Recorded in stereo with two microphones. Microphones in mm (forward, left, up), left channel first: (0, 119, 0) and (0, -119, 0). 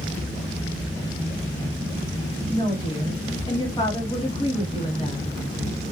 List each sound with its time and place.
2.5 s a woman speaking: 20° left (ahead or behind), 1.7 m